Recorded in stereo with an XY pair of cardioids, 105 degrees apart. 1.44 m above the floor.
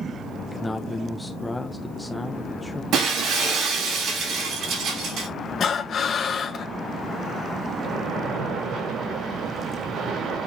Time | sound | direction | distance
0.5 | a man speaking | 10° left | 1.1 m
2.9 | breaking glass | 65° right | 4 m
5.6 | breathing | 50° left | 1.9 m
7.8 | a splash | 60° right | 5 m